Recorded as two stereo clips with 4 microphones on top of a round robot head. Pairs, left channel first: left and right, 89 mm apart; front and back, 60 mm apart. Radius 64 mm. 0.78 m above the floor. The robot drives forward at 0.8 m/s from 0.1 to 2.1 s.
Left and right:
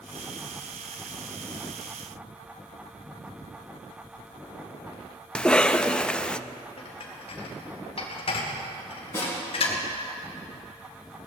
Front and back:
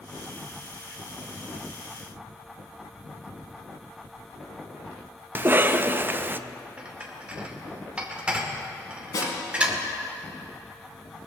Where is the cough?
165° left, 0.6 m.